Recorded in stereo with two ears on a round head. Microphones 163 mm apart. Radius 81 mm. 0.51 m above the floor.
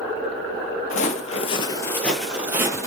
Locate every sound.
0.9 s footsteps: 45° left (ahead or behind), 0.7 m; by 2.9 s 20° right (ahead or behind), 0.7 m